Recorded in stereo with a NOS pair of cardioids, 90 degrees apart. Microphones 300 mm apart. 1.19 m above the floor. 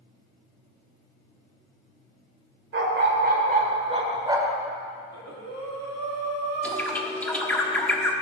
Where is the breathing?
55° right, 3 m.